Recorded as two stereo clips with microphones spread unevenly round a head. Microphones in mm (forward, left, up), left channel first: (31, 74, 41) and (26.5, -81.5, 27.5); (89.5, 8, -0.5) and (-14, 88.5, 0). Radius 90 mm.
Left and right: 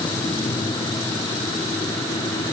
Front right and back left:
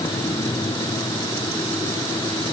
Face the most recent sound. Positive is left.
No sound to turn to.